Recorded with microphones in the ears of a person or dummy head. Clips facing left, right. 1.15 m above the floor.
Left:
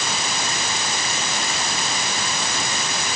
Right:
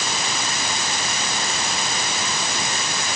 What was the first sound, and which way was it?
Only background noise.